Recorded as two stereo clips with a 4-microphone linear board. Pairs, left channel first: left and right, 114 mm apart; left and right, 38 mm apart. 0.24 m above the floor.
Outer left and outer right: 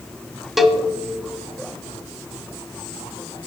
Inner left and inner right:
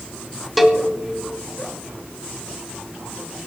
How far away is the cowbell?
About 0.9 m.